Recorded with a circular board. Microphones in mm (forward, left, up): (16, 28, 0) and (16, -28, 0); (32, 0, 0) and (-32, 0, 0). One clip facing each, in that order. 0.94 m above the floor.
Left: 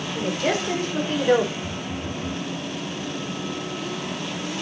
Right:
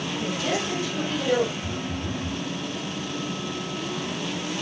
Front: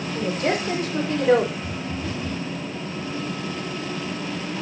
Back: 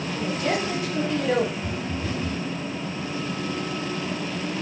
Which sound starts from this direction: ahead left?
A woman speaking, at 0.1 s.